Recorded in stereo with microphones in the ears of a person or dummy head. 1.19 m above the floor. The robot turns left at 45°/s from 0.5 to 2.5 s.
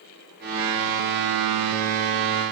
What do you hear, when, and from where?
Only background noise.